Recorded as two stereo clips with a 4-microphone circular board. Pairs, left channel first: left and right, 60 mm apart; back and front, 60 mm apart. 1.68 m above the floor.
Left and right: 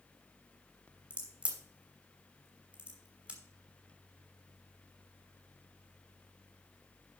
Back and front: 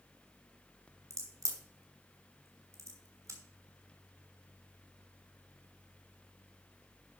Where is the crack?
20° right, 3 m.